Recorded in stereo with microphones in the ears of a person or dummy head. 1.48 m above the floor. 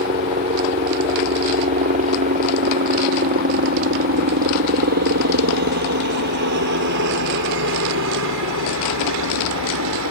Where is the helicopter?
30° right (ahead or behind); by 10.1 s 70° right (ahead or behind).